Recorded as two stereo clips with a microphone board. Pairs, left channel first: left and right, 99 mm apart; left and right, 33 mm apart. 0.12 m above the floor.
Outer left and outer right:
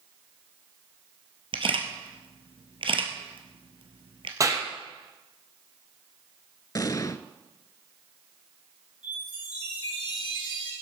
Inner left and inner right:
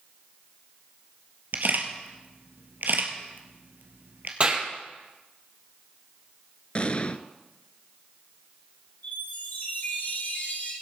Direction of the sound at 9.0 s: 55° left (ahead or behind).